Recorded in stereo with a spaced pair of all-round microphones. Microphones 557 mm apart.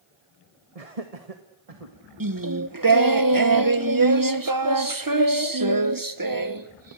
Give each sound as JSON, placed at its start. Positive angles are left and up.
{"t": 0.8, "sound": "laughter", "side_deg": -75, "distance_m": 1.7}
{"t": 2.2, "sound": "singing", "side_deg": -35, "distance_m": 1.2}